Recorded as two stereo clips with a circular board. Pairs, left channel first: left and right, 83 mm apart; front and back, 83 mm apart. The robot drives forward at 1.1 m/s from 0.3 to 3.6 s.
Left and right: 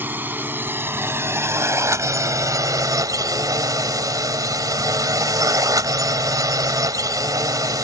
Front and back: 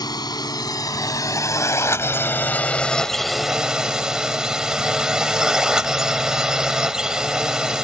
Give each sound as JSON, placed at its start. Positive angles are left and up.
{"t": 0.0, "sound": "a drone", "azimuth_deg": -25}